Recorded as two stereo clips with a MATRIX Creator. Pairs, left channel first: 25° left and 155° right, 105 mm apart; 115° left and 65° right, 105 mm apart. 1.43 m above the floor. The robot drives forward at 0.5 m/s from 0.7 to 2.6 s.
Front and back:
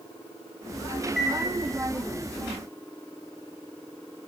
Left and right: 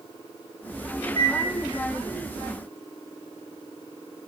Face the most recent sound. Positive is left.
turn(degrees=-75)